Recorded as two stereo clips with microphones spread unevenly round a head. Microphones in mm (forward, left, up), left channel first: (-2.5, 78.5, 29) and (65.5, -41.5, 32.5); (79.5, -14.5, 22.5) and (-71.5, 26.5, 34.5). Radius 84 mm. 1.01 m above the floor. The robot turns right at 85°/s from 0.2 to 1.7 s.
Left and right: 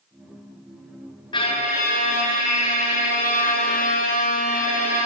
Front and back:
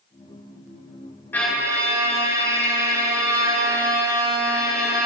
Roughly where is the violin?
Ahead left.